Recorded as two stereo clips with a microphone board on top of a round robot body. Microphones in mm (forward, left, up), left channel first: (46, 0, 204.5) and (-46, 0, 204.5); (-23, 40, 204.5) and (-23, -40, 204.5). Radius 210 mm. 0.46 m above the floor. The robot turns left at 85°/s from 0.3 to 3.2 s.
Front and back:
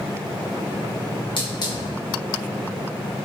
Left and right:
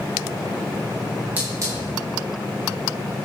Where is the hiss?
20° right, 4.5 m; by 1.9 s 65° right, 4.5 m.